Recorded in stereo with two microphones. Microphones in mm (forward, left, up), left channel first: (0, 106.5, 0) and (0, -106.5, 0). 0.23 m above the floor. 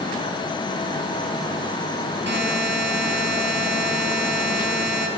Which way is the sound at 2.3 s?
60° right (ahead or behind).